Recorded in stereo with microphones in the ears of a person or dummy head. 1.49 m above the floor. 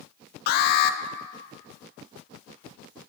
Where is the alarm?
50° left (ahead or behind), 1.0 m.